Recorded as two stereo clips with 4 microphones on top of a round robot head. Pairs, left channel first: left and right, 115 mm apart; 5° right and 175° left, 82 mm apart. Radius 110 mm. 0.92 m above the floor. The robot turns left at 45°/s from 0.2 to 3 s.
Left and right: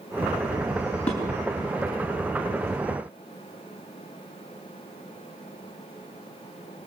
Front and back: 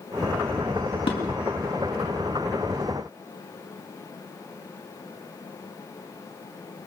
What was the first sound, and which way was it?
Dishes clattering, 10° left.